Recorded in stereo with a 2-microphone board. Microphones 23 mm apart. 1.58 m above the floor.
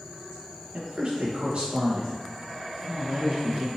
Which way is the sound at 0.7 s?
50° right (ahead or behind).